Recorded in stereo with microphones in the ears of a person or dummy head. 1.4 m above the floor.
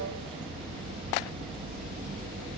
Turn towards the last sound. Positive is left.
turn(degrees=-35)  # may be behind; listen again after turning